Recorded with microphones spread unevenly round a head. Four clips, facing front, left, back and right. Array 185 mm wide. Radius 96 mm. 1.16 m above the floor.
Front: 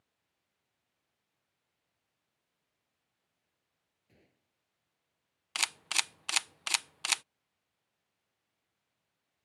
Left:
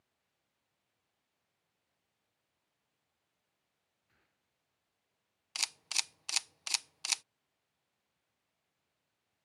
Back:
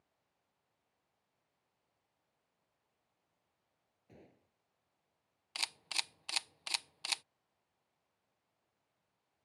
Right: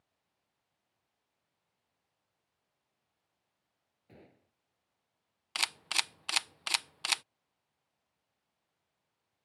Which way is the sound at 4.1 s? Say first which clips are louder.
Right 20 dB, back 8 dB; 115° right.